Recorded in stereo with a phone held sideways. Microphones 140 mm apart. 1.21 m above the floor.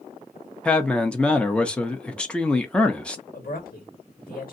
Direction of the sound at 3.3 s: 75° left (ahead or behind).